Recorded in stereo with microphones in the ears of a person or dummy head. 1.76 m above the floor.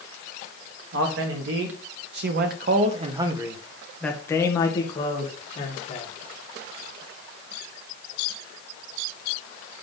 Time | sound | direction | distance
0.9 | a man speaking | 80° right | 1.6 m